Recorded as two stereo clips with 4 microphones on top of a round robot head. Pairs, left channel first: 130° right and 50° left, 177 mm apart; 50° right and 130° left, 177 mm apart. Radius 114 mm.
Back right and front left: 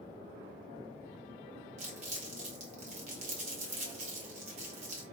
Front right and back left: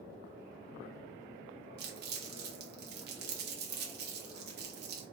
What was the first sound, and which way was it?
Crumpling, 100° left.